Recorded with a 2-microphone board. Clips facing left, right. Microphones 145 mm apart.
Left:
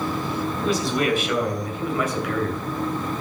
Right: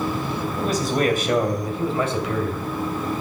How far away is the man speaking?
About 3 m.